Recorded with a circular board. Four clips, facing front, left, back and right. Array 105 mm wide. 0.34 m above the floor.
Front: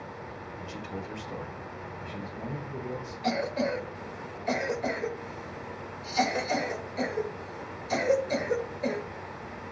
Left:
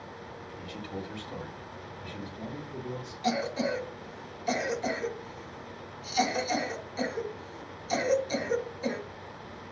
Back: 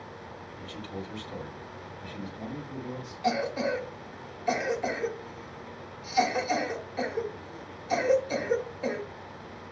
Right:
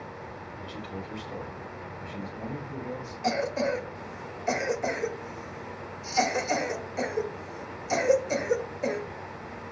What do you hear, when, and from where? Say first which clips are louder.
0.6 s a man speaking: even, even; 5° left, 1.4 m; by 3.1 s 70° right, 1.9 m
3.2 s a cough: right 2 dB, back 1 dB; 95° right, 1.0 m